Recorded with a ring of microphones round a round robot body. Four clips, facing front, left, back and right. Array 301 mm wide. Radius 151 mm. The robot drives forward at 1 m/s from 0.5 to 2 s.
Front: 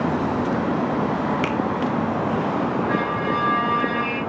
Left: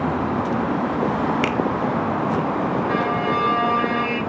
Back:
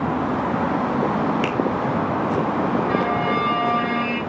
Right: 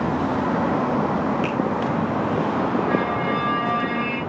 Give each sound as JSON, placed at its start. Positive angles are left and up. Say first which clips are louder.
{"t": 1.4, "sound": "a finger snap", "louder": "left 2 dB, even", "azimuth_deg": 90, "distance_m": 2.5}
{"t": 2.9, "sound": "a violin", "louder": "left 1 dB, back 2 dB", "azimuth_deg": 135, "distance_m": 4.5}